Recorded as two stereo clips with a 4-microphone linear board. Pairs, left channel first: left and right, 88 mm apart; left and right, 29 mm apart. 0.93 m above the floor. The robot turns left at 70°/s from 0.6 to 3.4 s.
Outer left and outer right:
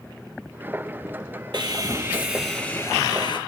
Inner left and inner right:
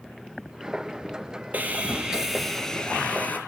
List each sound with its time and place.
1.5 s sawing: 110° right, 3.5 m; by 3.4 s 120° left, 3.5 m